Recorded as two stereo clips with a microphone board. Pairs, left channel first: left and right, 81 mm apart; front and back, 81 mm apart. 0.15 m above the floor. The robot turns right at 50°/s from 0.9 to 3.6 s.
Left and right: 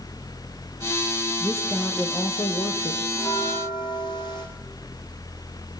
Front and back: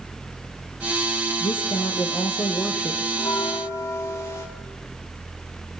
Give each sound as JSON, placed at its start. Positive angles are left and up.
{"t": 1.4, "sound": "a woman speaking", "azimuth_deg": -5, "distance_m": 4.0}
{"t": 3.1, "sound": "a bell", "azimuth_deg": 35, "distance_m": 6.0}